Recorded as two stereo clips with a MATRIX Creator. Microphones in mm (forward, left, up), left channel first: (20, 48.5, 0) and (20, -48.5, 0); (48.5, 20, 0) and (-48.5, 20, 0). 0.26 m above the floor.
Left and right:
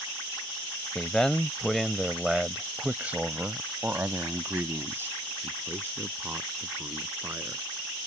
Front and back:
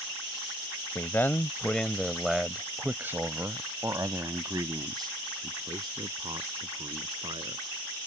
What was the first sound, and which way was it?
A man speaking, 20° left.